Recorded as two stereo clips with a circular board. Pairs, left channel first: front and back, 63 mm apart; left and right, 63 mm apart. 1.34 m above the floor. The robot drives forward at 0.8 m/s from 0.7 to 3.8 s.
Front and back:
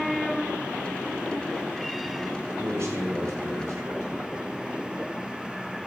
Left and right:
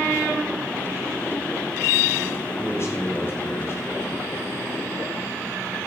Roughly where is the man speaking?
Behind left.